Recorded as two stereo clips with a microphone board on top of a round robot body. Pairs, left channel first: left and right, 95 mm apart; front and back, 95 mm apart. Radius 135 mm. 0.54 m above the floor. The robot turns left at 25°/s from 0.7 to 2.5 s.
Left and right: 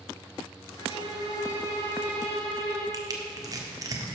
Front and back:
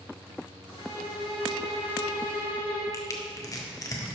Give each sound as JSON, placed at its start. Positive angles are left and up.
{"t": 0.8, "sound": "a violin", "azimuth_deg": 45, "distance_m": 3.5}
{"t": 2.9, "sound": "crushing", "azimuth_deg": -45, "distance_m": 1.9}